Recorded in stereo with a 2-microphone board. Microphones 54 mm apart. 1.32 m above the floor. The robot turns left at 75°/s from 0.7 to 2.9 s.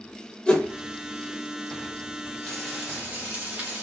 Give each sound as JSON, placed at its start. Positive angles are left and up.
{"t": 0.5, "sound": "a whoosh", "side_deg": 20, "distance_m": 0.6}
{"t": 2.4, "sound": "frying", "azimuth_deg": 15, "distance_m": 1.2}